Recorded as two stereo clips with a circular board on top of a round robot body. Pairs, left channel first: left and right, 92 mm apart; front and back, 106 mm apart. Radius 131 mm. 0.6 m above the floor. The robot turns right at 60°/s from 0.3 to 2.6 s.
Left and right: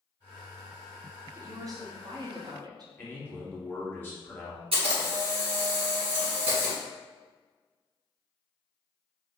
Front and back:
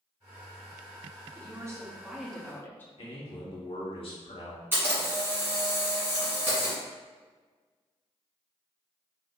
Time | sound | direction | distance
1.4 | a woman speaking | 140° right | 1.1 m
3.0 | a man speaking | 25° left | 1.6 m
4.7 | a camera shutter | 110° right | 1.6 m